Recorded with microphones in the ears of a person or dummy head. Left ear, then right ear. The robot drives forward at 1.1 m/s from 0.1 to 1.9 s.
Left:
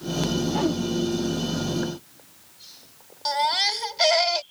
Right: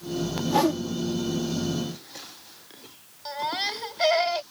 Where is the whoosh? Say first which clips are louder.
Right 7 dB; 85° right; by 0.8 s 80° right.